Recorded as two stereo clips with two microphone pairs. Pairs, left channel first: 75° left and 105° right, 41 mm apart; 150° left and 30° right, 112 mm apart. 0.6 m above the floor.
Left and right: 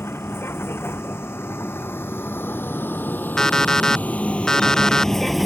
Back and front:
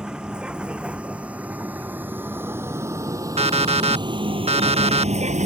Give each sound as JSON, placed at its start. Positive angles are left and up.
{"t": 0.0, "sound": "a vehicle", "azimuth_deg": 55}
{"t": 3.4, "sound": "an alarm clock", "azimuth_deg": 0}